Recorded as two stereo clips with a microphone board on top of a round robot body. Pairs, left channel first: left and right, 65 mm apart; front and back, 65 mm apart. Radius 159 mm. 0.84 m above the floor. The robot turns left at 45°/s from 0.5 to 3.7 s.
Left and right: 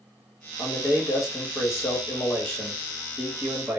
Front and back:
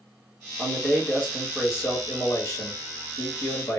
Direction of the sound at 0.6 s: 110° left.